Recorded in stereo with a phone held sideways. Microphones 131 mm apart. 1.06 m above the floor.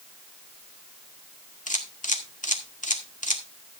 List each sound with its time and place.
1.7 s a camera shutter: 75° left (ahead or behind), 2.0 m